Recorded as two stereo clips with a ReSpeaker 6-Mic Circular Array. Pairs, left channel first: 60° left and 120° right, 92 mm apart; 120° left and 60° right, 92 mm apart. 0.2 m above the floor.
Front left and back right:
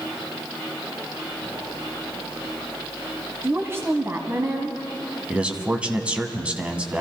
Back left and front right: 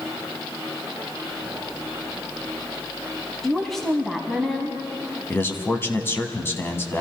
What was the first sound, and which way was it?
A woman speaking, 155° right.